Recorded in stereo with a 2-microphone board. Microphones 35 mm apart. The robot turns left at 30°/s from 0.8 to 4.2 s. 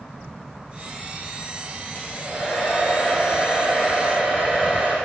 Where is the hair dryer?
55° left, 5.5 m; by 5.0 s 15° right, 5.5 m.